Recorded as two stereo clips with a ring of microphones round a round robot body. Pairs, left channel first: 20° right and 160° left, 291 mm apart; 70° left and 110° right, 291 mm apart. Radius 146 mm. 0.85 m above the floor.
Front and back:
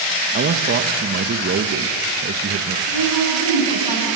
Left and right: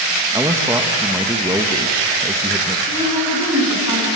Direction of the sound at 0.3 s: 175° left.